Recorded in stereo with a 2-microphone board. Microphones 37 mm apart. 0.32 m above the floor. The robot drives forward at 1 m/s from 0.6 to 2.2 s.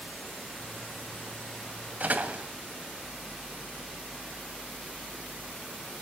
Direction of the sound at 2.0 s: 50° right (ahead or behind).